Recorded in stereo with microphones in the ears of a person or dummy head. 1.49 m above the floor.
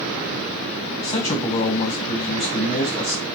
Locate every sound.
1.0 s a man speaking: 25° left (ahead or behind), 0.9 m